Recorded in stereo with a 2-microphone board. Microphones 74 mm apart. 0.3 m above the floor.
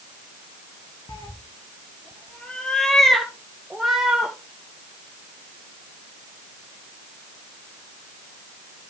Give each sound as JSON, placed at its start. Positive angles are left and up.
{"t": 1.1, "sound": "a cat meowing", "side_deg": 85, "distance_m": 0.7}